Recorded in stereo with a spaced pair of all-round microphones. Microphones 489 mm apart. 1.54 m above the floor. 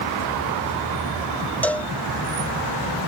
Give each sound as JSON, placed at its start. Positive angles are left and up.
{"t": 1.6, "sound": "a cowbell", "side_deg": 5}